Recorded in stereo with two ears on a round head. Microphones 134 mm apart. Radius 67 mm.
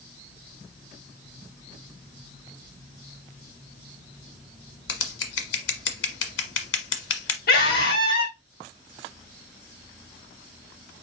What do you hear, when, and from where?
4.9 s scissors: 85° left, 1.3 m
7.5 s a scream: 65° left (ahead or behind), 4.5 m